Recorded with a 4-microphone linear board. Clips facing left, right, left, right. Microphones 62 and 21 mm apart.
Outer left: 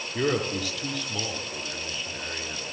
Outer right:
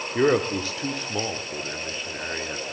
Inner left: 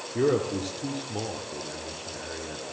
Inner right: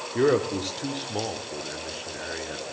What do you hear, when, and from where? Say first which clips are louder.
0.1 s a man speaking: outer right 5 dB, inner right 2 dB; 30° right (ahead or behind), 1.0 m